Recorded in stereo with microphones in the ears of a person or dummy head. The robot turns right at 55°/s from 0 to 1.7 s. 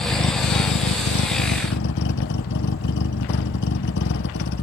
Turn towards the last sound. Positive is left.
turn(degrees=125)